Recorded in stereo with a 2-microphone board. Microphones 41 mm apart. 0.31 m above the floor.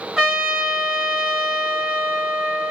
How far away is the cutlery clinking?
No cutlery clinking in this recording.